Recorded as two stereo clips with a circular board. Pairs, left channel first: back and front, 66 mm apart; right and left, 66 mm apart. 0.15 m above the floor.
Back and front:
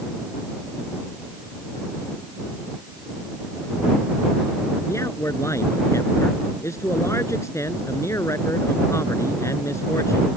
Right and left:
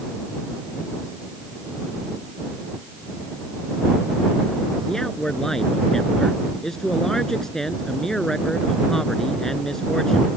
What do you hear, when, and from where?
4.8 s a man speaking: 170° right